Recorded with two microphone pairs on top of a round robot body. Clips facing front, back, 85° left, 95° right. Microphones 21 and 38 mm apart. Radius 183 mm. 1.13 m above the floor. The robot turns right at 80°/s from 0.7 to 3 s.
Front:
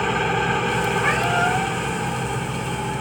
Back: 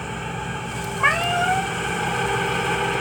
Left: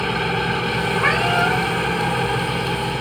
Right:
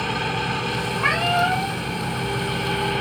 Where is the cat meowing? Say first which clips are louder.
Back 4 dB, left 1 dB; 170° left, 2.0 m; by 1.7 s 130° right, 2.0 m.